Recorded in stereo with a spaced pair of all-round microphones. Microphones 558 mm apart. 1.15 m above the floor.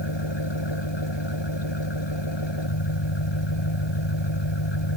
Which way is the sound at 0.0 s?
50° left (ahead or behind).